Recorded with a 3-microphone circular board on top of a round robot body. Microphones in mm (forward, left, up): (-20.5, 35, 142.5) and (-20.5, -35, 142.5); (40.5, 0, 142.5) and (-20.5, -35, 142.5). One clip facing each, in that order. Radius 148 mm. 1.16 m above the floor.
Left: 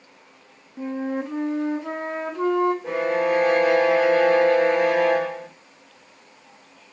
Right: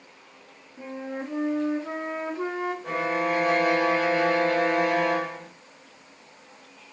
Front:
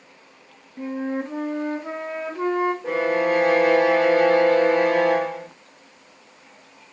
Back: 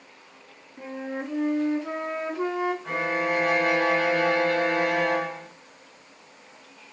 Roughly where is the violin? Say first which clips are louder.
Left 4 dB, front 5 dB; ahead left.